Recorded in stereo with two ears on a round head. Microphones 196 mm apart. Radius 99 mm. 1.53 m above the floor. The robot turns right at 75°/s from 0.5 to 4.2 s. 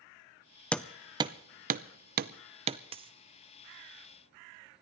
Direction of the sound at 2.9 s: 25° right (ahead or behind).